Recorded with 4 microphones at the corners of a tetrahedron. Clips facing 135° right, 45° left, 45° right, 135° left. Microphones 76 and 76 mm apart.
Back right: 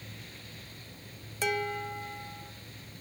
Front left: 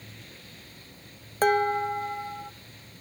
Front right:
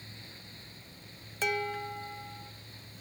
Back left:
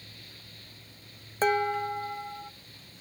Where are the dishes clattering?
85° left, 0.5 m.